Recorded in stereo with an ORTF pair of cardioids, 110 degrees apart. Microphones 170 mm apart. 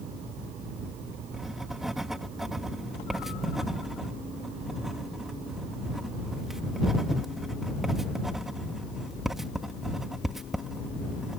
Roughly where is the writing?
Ahead.